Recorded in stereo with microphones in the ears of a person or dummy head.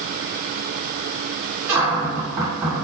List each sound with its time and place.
1.7 s a cupboard door: 15° right (ahead or behind), 1.6 m